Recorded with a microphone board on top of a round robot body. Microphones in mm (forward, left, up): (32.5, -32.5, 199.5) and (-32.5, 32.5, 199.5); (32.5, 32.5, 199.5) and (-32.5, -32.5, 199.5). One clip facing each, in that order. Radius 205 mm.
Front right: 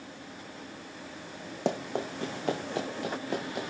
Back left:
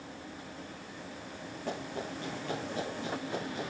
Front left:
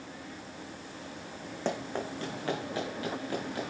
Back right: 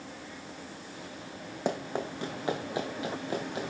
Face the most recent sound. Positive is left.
turn(degrees=-65)